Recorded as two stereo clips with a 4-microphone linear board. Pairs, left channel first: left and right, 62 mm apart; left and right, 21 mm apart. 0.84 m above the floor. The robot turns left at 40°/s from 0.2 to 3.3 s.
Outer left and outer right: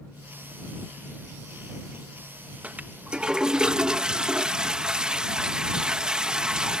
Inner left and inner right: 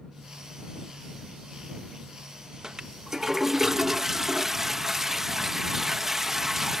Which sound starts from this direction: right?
A toilet flushing, at 2.6 s.